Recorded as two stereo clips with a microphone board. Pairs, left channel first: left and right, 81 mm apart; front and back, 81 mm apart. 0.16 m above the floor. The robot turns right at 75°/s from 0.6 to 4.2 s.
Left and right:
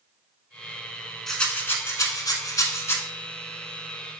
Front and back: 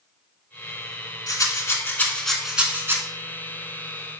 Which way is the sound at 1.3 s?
5° left.